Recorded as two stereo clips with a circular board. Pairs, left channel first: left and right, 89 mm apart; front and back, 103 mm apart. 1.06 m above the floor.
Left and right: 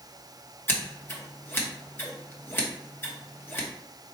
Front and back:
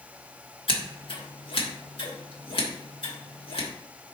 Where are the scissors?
25° left, 1.1 m.